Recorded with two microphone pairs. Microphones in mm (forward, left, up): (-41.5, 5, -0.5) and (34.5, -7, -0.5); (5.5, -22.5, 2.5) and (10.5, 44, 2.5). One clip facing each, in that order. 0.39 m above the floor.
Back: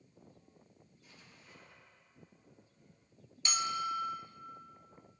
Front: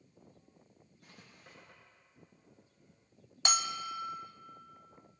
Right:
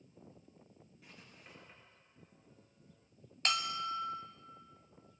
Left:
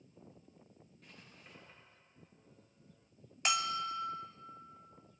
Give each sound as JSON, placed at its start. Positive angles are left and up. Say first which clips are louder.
{"t": 1.0, "sound": "writing", "louder": "front 3 dB, right 1 dB", "azimuth_deg": -10, "distance_m": 6.0}
{"t": 3.5, "sound": "a bell", "louder": "even, left 1 dB", "azimuth_deg": 5, "distance_m": 0.9}